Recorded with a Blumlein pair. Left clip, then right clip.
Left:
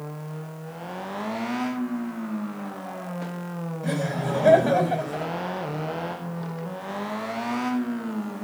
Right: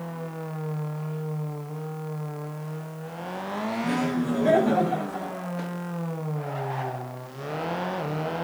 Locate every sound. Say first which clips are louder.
3.8 s laughter: left 3 dB; 65° left, 6 m